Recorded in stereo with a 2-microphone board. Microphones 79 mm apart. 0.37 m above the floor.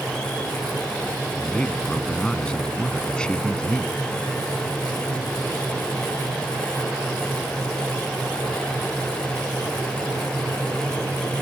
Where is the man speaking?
10° left (ahead or behind).